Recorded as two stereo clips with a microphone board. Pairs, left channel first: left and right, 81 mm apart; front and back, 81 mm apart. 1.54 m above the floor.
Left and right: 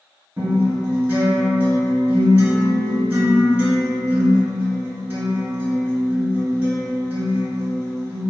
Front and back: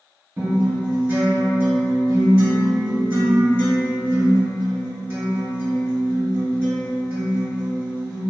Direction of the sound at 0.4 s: 145° right.